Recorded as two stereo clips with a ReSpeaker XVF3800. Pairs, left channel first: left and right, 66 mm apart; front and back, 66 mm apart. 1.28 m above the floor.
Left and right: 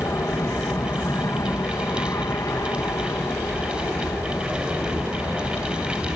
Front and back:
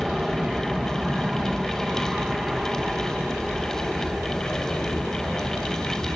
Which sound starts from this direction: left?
An aircraft, at 0.0 s.